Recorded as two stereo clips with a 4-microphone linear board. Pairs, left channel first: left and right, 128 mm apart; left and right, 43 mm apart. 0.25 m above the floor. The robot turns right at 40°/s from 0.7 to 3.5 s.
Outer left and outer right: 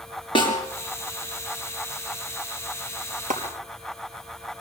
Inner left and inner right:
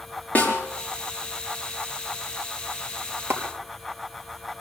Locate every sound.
0.3 s a snare drum: 40° left (ahead or behind), 5 m
3.3 s a clap: 65° right (ahead or behind), 3.5 m; by 3.4 s 70° right (ahead or behind), 3.5 m